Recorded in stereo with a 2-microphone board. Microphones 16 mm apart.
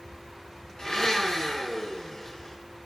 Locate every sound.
0.8 s a blender: 50° left (ahead or behind), 2.5 m